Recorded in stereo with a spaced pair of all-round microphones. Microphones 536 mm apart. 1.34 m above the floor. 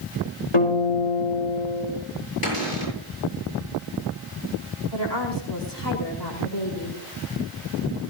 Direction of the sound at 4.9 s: 50° left (ahead or behind).